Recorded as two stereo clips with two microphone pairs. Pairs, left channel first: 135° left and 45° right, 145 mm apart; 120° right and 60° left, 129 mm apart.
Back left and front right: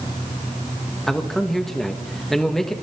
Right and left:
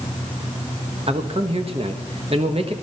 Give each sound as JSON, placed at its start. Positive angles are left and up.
{"t": 1.1, "sound": "a man speaking", "azimuth_deg": 50, "distance_m": 1.2}